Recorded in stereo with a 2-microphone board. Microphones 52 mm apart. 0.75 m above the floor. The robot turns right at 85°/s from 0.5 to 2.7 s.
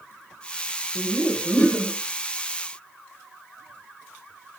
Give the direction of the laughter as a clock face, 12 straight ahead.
1 o'clock.